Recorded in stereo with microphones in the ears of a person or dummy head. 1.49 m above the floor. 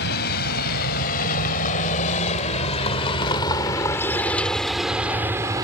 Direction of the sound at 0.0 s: 55° left (ahead or behind).